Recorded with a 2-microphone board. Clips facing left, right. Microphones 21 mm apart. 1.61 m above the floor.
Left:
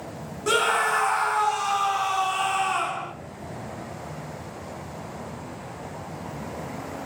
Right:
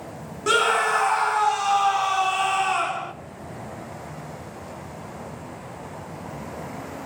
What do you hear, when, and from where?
0.5 s a scream: 20° right (ahead or behind), 1.0 m